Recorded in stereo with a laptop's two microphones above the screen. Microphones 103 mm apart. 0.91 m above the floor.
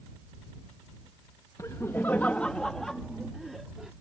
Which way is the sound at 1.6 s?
30° left (ahead or behind).